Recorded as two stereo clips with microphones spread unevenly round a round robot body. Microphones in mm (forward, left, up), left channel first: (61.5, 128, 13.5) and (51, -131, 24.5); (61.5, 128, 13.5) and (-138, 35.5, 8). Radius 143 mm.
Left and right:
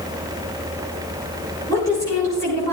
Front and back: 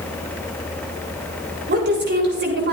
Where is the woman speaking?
165° left, 7 m.